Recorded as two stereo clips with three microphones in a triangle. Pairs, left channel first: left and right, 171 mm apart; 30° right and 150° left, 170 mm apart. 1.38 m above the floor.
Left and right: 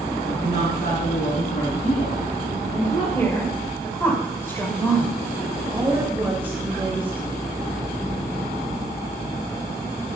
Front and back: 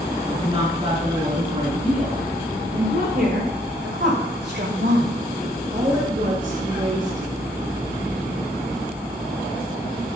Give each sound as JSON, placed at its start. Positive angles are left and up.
{"t": 0.2, "sound": "a woman speaking", "azimuth_deg": 90, "distance_m": 3.0}
{"t": 3.1, "sound": "a woman speaking", "azimuth_deg": 165, "distance_m": 6.5}
{"t": 5.7, "sound": "a woman speaking", "azimuth_deg": -170, "distance_m": 6.5}